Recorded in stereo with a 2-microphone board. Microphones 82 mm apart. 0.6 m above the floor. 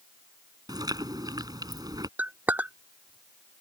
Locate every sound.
0.7 s chewing: 60° right (ahead or behind)
2.2 s a clink: 25° right (ahead or behind)